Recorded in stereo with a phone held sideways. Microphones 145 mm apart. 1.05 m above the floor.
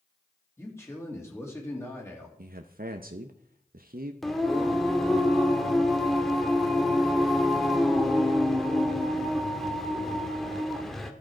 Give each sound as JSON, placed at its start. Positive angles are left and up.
{"t": 0.6, "sound": "a man speaking", "side_deg": 15, "distance_m": 2.5}
{"t": 2.4, "sound": "a man speaking", "side_deg": -80, "distance_m": 0.7}
{"t": 4.2, "sound": "singing", "side_deg": 0, "distance_m": 1.1}